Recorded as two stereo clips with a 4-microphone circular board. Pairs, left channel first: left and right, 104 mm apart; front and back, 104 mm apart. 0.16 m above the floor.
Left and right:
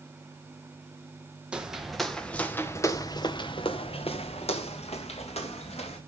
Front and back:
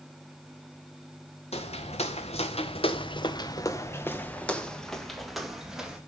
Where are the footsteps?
10° right, 2 m; by 6.0 s 100° left, 3.5 m.